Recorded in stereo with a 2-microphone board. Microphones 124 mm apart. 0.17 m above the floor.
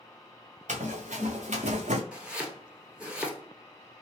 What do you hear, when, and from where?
0.7 s running footsteps: 80° right, 1.6 m
2.1 s chopping: 10° right (ahead or behind), 1.0 m